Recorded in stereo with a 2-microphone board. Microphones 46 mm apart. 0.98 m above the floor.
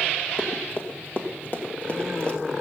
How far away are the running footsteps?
About 2.5 m.